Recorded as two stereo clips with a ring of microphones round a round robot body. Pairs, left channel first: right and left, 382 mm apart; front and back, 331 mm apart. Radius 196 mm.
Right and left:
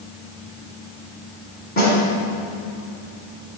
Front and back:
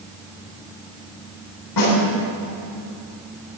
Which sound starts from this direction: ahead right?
A snare drum, at 1.8 s.